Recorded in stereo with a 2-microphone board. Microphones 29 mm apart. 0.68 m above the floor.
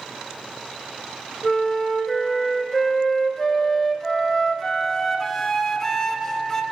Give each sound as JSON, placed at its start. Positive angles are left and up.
{"t": 1.4, "sound": "a flute", "side_deg": 15, "distance_m": 0.7}